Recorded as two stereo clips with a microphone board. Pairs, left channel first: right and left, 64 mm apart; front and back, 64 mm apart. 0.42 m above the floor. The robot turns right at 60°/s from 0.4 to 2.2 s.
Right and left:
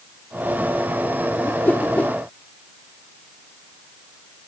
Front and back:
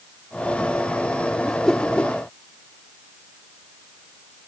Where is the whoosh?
85° right; by 2.1 s 45° right.